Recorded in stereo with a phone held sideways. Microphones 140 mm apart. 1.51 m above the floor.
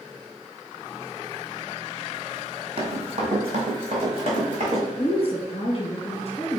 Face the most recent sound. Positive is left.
turn(degrees=45)  # may be behind; listen again after turning